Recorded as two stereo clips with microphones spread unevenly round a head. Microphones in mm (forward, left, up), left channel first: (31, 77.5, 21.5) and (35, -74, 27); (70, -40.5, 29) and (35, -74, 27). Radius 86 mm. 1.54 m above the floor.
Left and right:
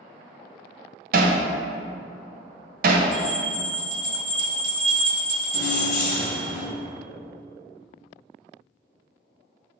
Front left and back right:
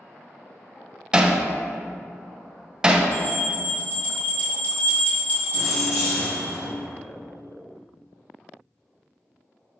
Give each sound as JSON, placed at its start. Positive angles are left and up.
{"t": 1.1, "sound": "hammering", "azimuth_deg": -65, "distance_m": 0.8}
{"t": 3.1, "sound": "a bell", "azimuth_deg": 25, "distance_m": 1.9}
{"t": 5.5, "sound": "keys jangling", "azimuth_deg": 55, "distance_m": 1.4}